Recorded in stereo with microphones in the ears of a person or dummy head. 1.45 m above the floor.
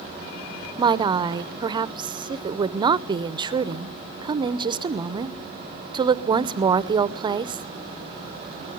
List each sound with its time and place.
0.8 s a woman speaking: 25° right (ahead or behind), 0.6 m